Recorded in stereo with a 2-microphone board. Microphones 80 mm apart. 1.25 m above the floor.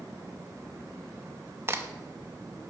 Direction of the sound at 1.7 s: 30° right (ahead or behind).